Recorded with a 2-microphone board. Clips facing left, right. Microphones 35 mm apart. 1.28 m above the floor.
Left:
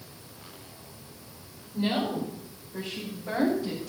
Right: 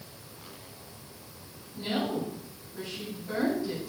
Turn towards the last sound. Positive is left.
turn(degrees=75)  # may be behind; listen again after turning